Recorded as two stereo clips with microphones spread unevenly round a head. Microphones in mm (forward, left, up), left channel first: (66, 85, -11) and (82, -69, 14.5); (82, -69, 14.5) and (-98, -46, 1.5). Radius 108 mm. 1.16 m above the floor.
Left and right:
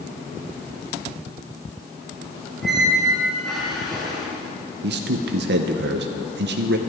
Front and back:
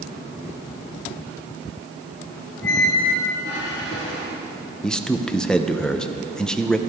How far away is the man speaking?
About 0.6 m.